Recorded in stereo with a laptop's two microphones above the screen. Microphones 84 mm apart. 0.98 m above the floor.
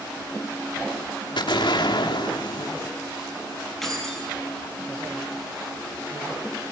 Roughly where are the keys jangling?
Centre.